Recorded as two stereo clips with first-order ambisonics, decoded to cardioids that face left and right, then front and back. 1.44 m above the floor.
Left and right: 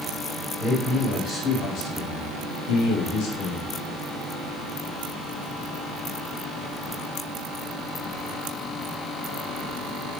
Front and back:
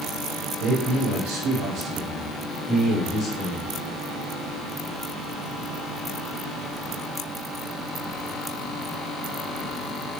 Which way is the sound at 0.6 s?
175° left.